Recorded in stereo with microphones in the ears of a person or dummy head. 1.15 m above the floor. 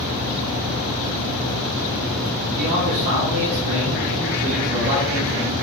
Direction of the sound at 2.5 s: 60° right (ahead or behind).